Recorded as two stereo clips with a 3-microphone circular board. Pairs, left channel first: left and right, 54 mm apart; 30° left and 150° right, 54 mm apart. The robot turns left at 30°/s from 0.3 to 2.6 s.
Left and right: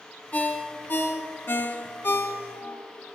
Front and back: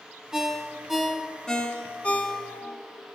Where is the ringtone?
135° left, 1.0 m; by 2.8 s 70° left, 1.0 m.